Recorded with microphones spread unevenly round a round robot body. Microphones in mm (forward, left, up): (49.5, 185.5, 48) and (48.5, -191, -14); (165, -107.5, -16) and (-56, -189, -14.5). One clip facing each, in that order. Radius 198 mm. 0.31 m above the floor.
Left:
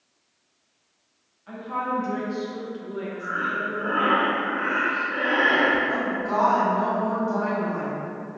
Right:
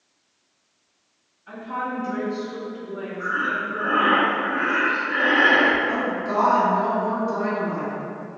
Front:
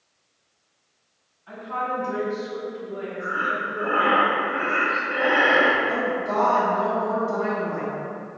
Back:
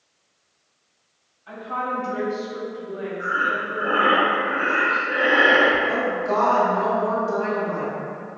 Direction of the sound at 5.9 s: 160° right.